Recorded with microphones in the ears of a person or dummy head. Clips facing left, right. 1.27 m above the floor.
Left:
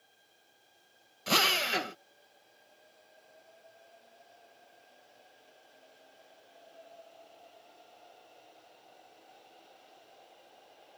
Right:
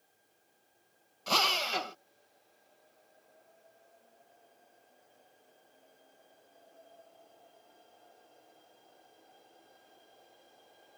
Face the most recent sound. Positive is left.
turn(degrees=25)  # may be behind; listen again after turning